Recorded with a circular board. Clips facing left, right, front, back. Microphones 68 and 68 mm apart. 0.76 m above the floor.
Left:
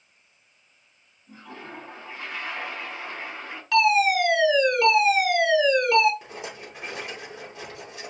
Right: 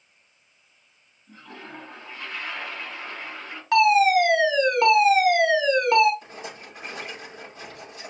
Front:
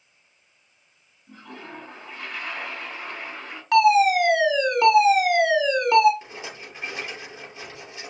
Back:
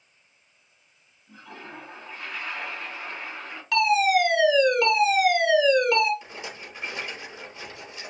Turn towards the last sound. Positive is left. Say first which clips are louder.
# left 1 dB, front 1 dB
turn(degrees=65)